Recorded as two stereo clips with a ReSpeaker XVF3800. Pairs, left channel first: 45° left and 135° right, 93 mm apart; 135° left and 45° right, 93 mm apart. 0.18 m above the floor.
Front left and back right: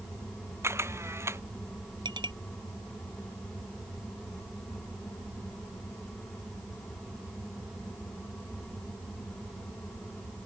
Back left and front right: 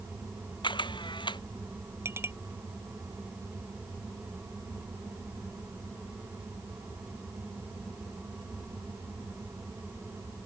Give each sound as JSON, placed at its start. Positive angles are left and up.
{"t": 0.6, "sound": "a camera shutter", "azimuth_deg": 165}
{"t": 2.0, "sound": "a clink", "azimuth_deg": -105}